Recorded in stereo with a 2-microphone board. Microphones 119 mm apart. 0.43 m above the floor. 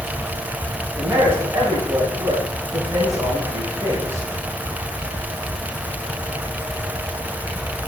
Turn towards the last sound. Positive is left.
turn(degrees=-20)  # may be behind; listen again after turning